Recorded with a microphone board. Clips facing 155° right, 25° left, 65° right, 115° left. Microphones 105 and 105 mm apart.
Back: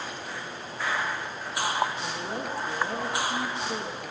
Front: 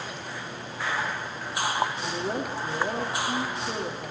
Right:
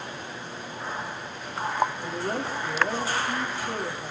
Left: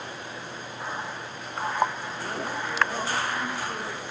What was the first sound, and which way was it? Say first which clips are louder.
A woman speaking: front 3 dB, right 3 dB; 15° right.